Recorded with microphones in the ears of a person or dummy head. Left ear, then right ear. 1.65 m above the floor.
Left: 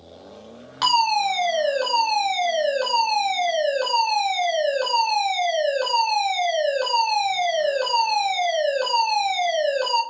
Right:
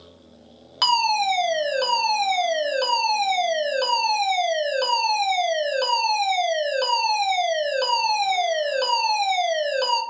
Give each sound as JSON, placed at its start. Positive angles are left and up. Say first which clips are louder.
{"t": 0.8, "sound": "a fire alarm", "louder": "even", "side_deg": -15, "distance_m": 0.8}